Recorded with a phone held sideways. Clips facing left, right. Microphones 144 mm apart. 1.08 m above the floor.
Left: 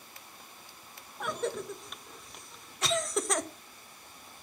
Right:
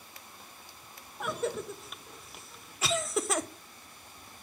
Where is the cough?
5° right (ahead or behind), 0.7 m.